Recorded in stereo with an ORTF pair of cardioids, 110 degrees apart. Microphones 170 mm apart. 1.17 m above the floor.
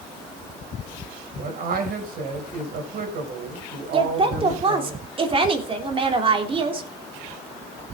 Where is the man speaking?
60° right, 5 m.